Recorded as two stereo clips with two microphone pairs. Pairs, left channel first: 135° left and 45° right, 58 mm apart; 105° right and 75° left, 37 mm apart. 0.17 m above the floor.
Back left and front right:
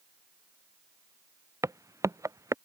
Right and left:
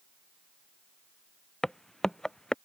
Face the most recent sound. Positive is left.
turn(degrees=-30)